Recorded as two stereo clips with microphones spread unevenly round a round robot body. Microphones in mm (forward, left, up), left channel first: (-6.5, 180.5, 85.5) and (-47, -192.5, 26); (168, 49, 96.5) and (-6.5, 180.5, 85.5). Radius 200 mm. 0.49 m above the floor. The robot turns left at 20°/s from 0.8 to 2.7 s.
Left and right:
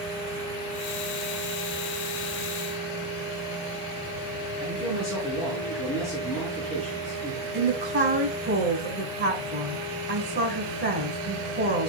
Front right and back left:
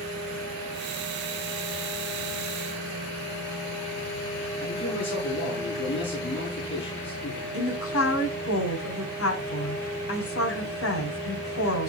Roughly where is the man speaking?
Ahead.